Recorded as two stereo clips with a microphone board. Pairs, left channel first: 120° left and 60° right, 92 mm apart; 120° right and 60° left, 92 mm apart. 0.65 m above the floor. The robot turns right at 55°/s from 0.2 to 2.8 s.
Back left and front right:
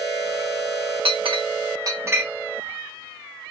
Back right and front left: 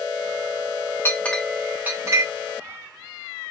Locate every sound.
1.1 s a clink: 55° right, 0.7 m; by 2.2 s 10° left, 0.7 m